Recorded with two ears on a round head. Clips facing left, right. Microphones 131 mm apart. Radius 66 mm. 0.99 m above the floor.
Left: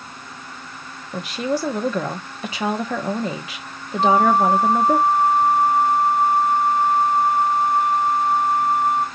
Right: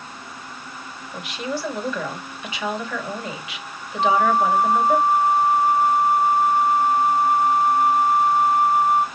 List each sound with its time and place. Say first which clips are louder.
1.1 s a woman speaking: left 5 dB; 35° left (ahead or behind), 0.9 m
4.0 s a flute: left 2 dB; 10° left (ahead or behind), 3 m